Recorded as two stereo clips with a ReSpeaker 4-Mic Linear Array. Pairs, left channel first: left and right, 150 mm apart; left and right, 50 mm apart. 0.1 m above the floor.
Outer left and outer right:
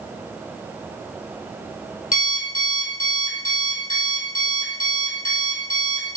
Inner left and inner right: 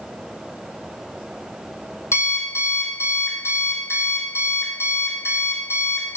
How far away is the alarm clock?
About 1.6 m.